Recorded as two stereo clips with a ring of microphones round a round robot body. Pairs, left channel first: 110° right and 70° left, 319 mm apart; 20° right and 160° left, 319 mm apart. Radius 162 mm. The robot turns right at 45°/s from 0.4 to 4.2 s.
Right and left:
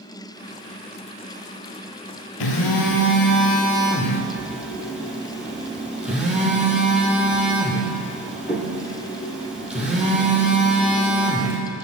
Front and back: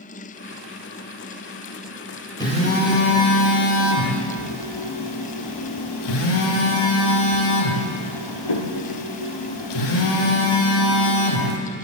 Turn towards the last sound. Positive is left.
turn(degrees=-20)